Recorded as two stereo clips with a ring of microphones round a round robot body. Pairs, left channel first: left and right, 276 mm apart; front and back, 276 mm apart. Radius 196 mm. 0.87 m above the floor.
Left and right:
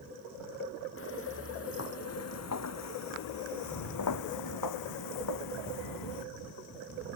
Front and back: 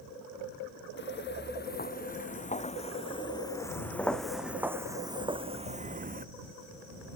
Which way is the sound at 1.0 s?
50° left.